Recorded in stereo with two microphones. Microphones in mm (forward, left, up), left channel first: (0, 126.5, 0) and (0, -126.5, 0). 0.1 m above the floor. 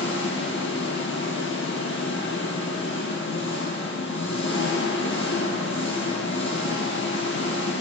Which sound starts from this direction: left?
An engine running, at 0.0 s.